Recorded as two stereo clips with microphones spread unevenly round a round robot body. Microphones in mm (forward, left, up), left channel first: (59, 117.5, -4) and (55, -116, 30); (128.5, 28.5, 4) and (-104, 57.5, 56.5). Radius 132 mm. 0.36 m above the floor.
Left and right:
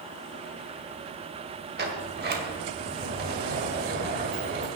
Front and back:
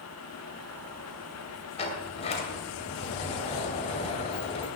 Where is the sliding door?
50° right, 2 m.